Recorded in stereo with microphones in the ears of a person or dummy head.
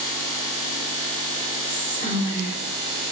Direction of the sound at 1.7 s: 40° left (ahead or behind).